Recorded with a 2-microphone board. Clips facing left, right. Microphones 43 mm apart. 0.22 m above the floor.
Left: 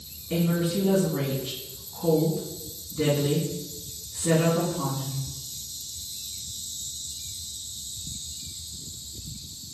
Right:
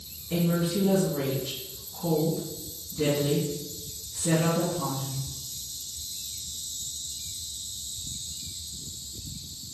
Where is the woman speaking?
40° left (ahead or behind), 1.7 m.